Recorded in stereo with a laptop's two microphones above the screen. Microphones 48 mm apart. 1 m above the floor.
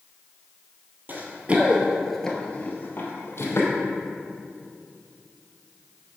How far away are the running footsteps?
About 1.5 m.